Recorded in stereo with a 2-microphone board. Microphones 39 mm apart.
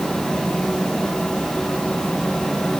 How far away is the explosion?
I don't hear an explosion.